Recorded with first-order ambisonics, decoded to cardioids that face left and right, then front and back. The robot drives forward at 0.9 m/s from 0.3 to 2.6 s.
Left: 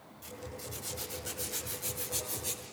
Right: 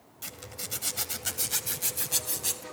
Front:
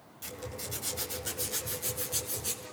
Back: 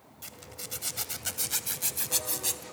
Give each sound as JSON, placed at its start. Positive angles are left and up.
{"t": 0.2, "sound": "a zipper", "azimuth_deg": -90, "distance_m": 1.8}